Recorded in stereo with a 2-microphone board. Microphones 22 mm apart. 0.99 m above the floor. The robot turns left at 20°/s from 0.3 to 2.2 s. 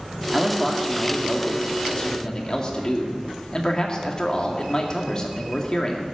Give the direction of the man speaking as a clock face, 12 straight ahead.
6 o'clock.